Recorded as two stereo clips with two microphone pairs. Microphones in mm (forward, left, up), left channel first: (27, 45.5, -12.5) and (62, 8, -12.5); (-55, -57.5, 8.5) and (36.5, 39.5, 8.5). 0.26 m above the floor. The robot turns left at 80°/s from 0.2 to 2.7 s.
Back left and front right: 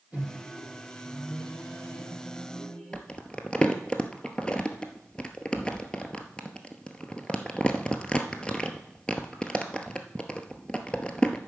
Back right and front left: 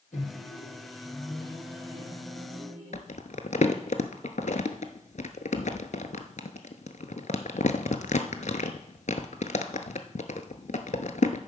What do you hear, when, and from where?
0.1 s a microwave: 110° right, 4 m; by 3.0 s 50° left, 4 m
2.9 s crumpling: 155° right, 0.8 m